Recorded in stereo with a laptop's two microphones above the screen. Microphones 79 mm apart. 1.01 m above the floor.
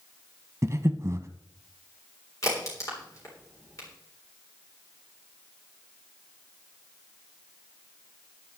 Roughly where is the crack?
Left.